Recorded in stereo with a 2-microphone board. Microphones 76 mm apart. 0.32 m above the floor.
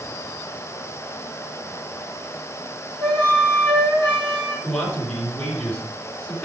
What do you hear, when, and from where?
3.0 s a flute: 85° right, 5.5 m
4.6 s a man speaking: 15° left (ahead or behind), 4 m